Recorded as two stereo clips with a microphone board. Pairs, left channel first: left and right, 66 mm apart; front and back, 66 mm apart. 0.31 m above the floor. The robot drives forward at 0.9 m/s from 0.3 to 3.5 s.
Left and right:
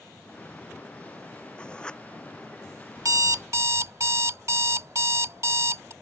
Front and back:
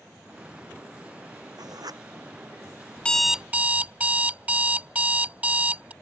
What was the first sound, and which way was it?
Writing, 165° left.